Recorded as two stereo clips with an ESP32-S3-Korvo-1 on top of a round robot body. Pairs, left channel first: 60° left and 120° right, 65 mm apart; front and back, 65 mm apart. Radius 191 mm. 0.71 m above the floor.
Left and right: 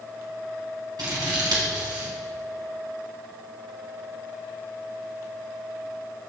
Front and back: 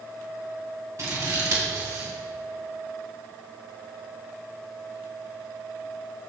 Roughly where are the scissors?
Behind right.